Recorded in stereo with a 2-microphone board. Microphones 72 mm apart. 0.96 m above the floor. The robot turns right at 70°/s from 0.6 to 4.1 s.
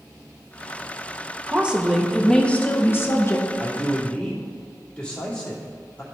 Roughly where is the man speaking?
Ahead.